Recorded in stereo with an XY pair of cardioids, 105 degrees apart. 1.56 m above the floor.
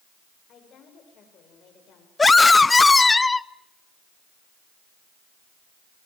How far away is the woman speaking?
About 7.5 m.